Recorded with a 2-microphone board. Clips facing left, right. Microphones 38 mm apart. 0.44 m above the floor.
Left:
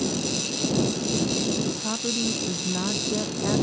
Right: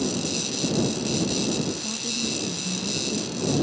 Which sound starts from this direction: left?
A woman speaking, at 1.6 s.